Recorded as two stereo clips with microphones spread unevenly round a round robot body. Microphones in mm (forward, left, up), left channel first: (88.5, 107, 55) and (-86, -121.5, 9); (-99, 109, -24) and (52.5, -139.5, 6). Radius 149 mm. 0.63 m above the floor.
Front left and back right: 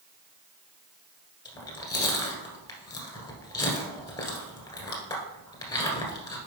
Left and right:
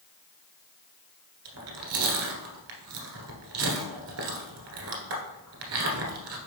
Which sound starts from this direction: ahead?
Chewing, at 1.4 s.